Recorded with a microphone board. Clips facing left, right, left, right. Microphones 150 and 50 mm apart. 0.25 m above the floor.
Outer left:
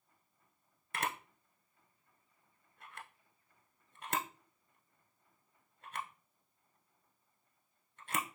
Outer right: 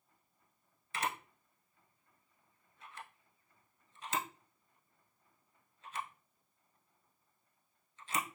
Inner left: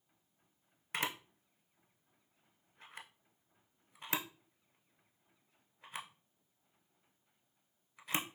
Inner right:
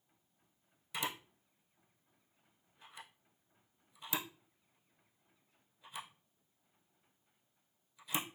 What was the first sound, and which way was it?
A camera shutter, 55° left (ahead or behind).